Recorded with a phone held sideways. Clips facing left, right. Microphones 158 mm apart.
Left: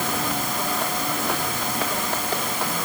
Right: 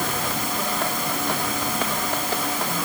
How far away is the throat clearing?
I don't hear throat clearing.